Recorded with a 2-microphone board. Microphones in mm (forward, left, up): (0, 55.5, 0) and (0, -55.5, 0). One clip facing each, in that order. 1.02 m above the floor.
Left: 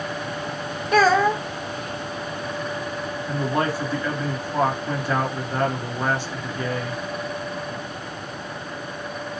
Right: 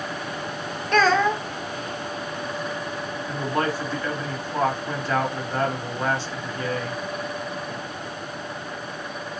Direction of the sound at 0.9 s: 10° left (ahead or behind).